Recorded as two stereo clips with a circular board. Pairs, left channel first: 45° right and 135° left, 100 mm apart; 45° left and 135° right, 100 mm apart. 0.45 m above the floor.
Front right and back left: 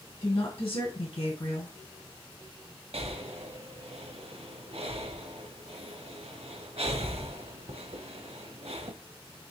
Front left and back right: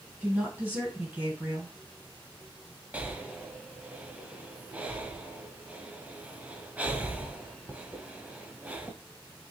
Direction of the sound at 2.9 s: 150° left.